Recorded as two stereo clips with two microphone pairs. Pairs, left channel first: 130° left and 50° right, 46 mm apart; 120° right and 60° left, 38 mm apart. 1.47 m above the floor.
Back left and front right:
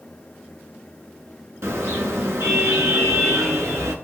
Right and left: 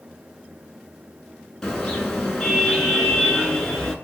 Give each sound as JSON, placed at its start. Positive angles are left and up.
{"t": 1.6, "sound": "a car horn", "azimuth_deg": -50, "distance_m": 8.5}